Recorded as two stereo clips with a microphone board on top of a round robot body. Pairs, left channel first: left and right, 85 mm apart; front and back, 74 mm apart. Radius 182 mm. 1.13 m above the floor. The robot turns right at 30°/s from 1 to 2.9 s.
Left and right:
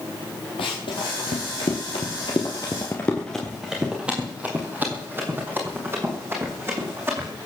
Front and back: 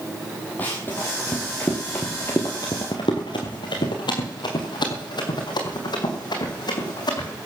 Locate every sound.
0.6 s running footsteps: 70° left, 1.9 m; by 7.3 s 30° right, 3.5 m